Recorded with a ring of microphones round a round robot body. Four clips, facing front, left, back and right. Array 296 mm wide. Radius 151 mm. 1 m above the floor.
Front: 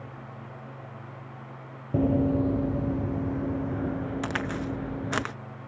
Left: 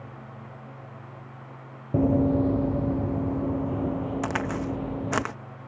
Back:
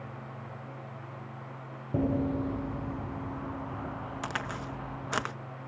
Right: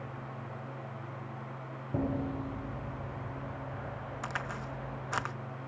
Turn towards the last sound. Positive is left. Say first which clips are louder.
# left 10 dB, front 5 dB
turn(degrees=75)